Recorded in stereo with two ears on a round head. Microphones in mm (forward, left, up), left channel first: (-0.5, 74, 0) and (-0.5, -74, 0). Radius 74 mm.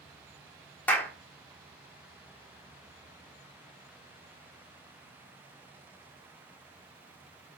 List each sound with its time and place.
0.9 s a clap: 10° left (ahead or behind), 0.9 m